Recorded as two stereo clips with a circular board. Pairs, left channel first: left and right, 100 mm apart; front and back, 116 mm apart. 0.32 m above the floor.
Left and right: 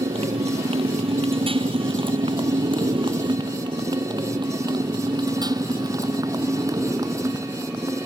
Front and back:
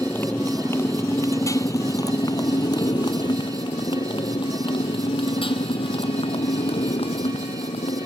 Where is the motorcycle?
75° right; by 8.1 s 30° right.